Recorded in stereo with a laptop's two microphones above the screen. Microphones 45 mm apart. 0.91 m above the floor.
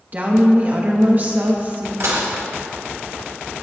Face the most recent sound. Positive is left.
turn(degrees=-70)  # may be behind; listen again after turning